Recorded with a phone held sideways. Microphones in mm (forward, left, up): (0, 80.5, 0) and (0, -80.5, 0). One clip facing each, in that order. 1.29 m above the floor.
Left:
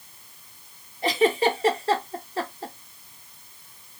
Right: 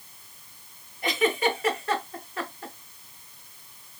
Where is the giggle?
30° left (ahead or behind), 1.0 m.